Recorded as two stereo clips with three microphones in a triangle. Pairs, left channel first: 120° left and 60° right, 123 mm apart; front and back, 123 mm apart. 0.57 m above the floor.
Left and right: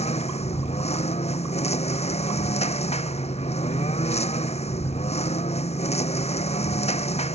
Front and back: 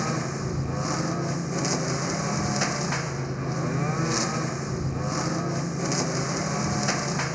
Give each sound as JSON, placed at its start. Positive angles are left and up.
{"t": 0.0, "sound": "a lawn mower", "azimuth_deg": 90}